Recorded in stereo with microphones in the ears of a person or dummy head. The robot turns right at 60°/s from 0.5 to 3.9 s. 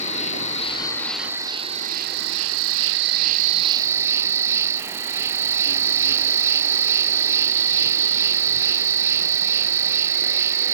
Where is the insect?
145° left; by 10.7 s 10° right.